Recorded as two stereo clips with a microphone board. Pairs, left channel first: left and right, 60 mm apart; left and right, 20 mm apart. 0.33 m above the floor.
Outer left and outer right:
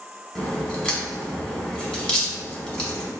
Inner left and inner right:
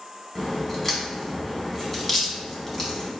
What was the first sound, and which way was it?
A crack, 15° left (ahead or behind).